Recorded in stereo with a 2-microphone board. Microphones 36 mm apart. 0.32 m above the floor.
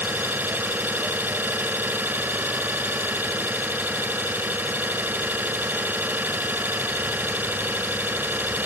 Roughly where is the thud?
I don't hear a thud.